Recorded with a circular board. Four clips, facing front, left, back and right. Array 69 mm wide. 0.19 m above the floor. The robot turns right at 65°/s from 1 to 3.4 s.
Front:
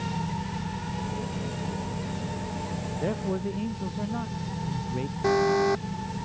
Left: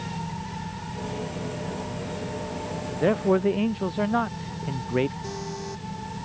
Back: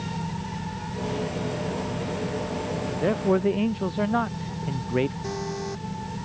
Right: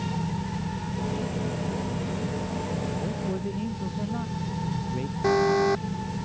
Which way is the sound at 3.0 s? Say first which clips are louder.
Left 9 dB, back 7 dB; 105° left.